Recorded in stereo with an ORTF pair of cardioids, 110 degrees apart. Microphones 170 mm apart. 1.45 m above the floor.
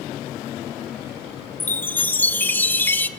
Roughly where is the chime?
Ahead.